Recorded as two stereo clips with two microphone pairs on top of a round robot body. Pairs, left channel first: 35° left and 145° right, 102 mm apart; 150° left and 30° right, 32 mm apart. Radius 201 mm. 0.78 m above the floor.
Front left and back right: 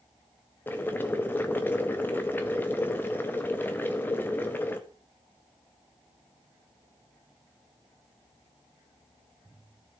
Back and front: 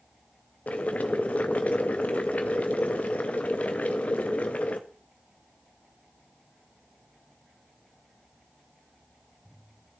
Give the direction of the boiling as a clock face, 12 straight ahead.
8 o'clock.